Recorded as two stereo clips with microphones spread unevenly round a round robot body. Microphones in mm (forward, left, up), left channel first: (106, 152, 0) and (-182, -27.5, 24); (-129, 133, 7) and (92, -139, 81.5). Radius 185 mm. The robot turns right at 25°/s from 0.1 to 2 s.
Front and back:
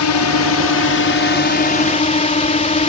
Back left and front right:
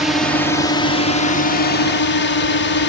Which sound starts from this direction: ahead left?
A drone, at 0.0 s.